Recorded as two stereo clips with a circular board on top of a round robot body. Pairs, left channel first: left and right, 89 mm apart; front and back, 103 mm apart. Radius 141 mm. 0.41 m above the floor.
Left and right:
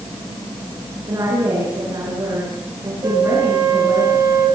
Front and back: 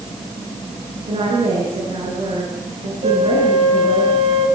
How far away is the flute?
About 5.5 m.